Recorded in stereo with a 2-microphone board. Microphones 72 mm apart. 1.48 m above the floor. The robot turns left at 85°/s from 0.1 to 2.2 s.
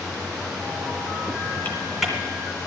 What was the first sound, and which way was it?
Typing on a keyboard, 30° left (ahead or behind).